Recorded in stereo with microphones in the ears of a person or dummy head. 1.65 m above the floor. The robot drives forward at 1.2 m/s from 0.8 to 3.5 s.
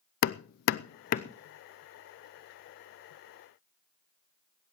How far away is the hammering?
About 0.6 m.